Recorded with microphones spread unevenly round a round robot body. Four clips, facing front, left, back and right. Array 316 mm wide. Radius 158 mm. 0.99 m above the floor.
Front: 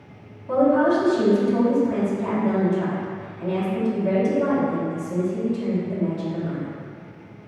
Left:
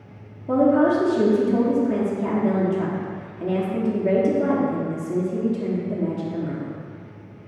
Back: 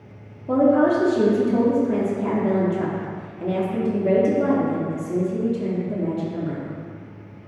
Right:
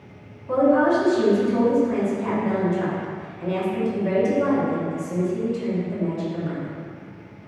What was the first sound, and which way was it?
A woman speaking, 130° left.